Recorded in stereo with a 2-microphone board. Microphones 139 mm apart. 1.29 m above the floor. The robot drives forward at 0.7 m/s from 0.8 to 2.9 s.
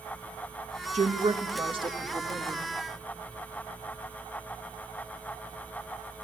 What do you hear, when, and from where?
0.9 s a woman speaking: 60° right (ahead or behind), 1.2 m; by 2.6 s 30° right (ahead or behind), 2 m